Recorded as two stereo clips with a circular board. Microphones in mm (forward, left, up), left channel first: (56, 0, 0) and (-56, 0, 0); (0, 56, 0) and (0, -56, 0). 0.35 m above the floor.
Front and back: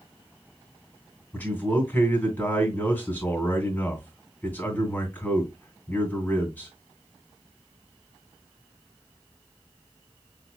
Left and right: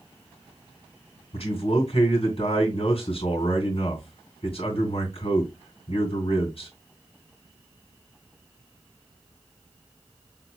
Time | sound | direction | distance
1.3 | a man speaking | 75° left | 2.5 m